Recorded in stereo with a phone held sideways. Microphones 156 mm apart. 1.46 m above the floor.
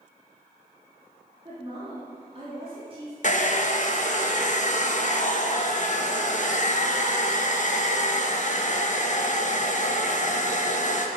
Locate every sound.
1.4 s a woman speaking: 35° right (ahead or behind), 3 m
3.2 s a hair dryer: 50° left (ahead or behind), 0.9 m